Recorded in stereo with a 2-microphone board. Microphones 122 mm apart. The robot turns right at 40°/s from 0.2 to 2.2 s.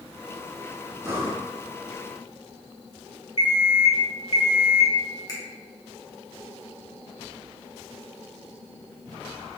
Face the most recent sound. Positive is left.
turn(degrees=35)  # may be behind; listen again after turning